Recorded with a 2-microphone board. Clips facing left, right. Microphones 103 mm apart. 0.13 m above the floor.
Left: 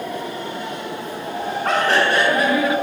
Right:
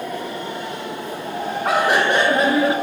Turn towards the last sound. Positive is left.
turn(degrees=-30)  # may be behind; listen again after turning